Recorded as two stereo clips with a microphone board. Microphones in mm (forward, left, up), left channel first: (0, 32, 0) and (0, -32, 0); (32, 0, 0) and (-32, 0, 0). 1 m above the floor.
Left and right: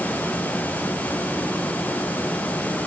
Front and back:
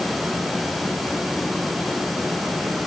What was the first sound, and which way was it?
Only background noise.